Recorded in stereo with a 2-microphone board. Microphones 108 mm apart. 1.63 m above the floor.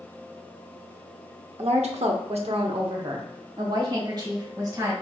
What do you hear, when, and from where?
1.6 s a woman speaking: 75° right (ahead or behind), 0.6 m; by 4.9 s 35° right (ahead or behind), 2 m